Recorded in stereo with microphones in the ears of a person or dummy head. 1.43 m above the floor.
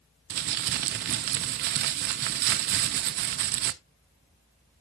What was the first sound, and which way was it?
Crumpling, 50° right (ahead or behind).